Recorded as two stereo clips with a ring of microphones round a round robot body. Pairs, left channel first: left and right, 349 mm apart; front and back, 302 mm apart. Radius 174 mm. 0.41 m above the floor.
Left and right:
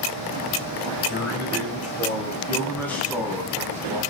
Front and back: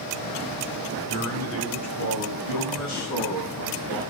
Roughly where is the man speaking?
Ahead left.